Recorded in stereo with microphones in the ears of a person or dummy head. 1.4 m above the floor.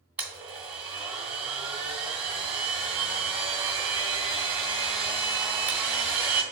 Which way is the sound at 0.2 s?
10° right (ahead or behind).